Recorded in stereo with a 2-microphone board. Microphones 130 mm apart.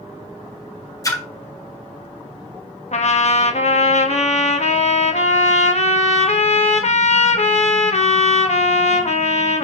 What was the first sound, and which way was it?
A splash, 25° left (ahead or behind).